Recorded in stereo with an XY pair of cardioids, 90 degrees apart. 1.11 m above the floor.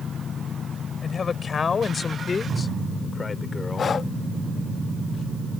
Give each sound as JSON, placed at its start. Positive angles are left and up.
{"t": 1.0, "sound": "a man speaking", "azimuth_deg": 45}
{"t": 3.8, "sound": "breathing", "azimuth_deg": 50}